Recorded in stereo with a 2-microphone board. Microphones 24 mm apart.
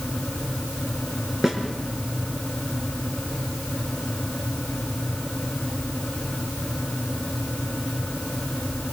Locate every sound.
1.4 s a snare drum: 5° right (ahead or behind), 4 m